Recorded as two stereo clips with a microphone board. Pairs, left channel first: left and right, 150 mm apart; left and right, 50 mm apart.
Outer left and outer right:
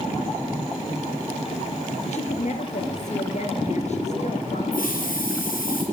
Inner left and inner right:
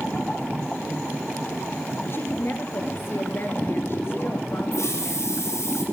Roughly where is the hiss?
Left.